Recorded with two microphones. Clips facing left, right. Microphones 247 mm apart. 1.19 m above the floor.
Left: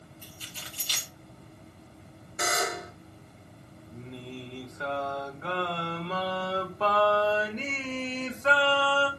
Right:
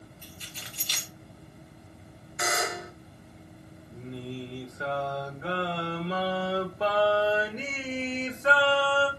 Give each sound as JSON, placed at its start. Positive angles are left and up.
{"t": 0.2, "sound": "keys jangling", "side_deg": 45, "distance_m": 2.5}
{"t": 2.4, "sound": "a buzzer", "side_deg": 45, "distance_m": 0.9}
{"t": 3.9, "sound": "singing", "side_deg": -10, "distance_m": 1.0}